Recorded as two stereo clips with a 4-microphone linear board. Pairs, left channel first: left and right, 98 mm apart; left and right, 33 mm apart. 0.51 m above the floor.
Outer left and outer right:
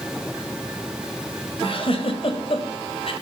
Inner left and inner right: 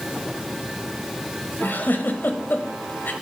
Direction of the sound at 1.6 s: 65° left (ahead or behind).